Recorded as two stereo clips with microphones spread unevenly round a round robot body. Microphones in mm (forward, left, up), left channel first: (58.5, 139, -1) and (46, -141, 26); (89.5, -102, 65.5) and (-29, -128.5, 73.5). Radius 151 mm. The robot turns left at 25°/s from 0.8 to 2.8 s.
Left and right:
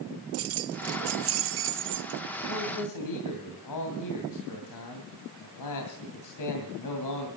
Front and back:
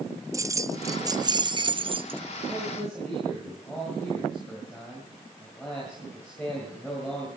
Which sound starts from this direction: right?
Keys jangling, at 0.3 s.